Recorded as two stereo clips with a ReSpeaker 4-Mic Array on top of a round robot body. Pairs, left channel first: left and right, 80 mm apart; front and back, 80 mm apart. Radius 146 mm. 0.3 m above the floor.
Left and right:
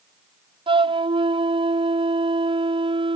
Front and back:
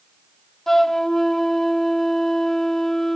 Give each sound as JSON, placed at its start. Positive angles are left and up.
{"t": 0.7, "sound": "a flute", "azimuth_deg": -85}